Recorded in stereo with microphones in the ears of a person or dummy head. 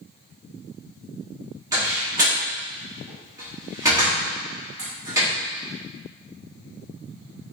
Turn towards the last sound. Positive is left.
turn(degrees=-20)  # may be behind; listen again after turning